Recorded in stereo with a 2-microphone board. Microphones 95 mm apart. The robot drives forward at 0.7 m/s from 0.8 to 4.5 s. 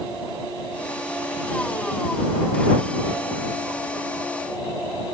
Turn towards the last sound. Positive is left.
No sound to turn to.